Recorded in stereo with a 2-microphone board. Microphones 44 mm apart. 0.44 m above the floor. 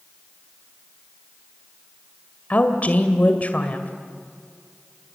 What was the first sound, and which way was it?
A woman speaking, 35° left (ahead or behind).